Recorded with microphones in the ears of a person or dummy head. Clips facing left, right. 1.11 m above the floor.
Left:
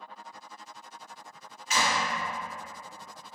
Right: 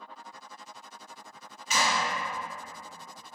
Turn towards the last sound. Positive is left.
turn(degrees=-80)